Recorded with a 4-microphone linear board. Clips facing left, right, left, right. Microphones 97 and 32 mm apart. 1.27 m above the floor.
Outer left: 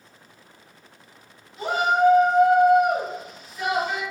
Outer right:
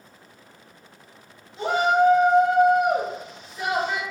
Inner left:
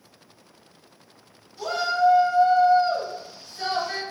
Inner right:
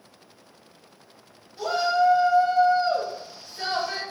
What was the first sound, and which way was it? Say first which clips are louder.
A shout: outer right 1 dB, inner right 1 dB; 25° right (ahead or behind).